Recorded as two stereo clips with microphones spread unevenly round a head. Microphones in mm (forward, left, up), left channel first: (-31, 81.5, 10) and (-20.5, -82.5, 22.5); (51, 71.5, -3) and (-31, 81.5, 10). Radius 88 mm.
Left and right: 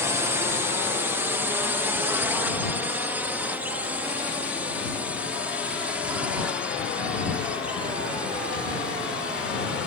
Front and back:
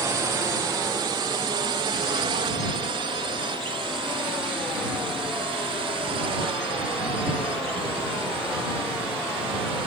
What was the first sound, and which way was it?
A drone, 155° right.